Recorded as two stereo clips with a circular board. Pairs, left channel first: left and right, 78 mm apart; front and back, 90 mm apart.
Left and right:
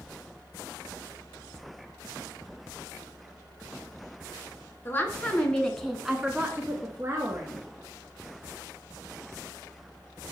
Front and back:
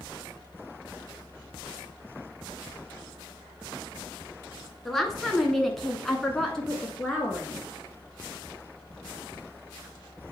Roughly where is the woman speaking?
Left.